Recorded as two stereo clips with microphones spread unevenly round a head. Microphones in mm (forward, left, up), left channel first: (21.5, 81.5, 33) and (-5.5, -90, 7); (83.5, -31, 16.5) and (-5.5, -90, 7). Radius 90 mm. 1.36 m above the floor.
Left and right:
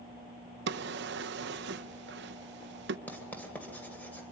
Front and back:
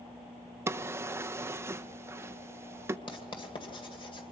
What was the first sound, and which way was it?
A drawer, 80° right.